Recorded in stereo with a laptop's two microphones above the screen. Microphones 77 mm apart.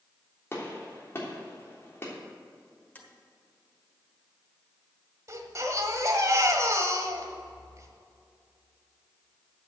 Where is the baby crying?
45° right (ahead or behind), 1.6 m.